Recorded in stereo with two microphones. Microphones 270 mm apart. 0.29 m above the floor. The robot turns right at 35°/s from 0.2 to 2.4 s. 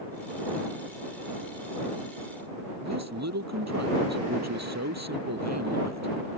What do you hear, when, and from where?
2.8 s a man speaking: 75° right (ahead or behind)